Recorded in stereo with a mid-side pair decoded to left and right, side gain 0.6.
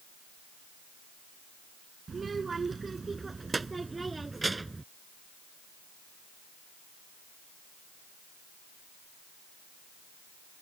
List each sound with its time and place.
2.1 s a child speaking: 25° right; by 4.8 s 15° right